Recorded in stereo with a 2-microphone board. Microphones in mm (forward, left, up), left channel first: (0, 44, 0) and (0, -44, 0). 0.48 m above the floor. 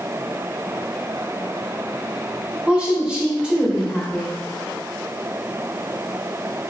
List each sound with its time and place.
2.7 s a woman speaking: 10° right (ahead or behind), 1.0 m